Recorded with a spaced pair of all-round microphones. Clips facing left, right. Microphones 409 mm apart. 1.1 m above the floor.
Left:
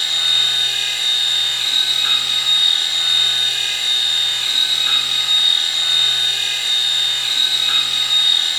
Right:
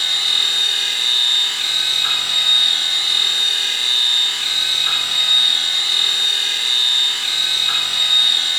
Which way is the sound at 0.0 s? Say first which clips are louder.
Right 1 dB; 25° right (ahead or behind).